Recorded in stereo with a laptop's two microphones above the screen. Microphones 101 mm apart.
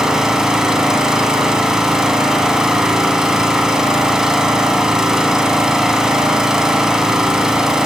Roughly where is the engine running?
Centre.